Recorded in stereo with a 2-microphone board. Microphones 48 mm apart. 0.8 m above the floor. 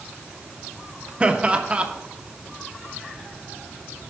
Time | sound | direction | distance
1.2 | laughter | 25° right (ahead or behind) | 0.7 m